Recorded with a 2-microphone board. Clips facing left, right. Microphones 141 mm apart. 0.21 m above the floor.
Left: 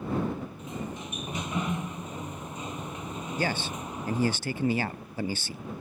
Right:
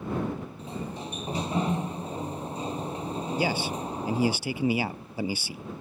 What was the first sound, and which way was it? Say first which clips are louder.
A sliding door: right 1 dB; 35° right (ahead or behind).